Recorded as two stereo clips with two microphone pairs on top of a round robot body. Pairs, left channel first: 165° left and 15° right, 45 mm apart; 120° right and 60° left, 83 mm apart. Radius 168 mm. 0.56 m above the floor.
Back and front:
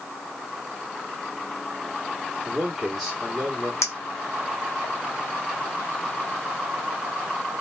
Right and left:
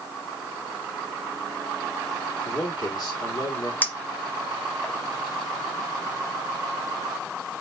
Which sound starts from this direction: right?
A man speaking, at 2.5 s.